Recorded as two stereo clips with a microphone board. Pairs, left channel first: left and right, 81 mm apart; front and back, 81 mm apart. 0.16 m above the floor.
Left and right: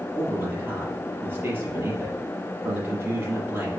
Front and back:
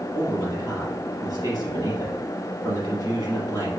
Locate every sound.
0.1 s a man speaking: 155° right, 4.5 m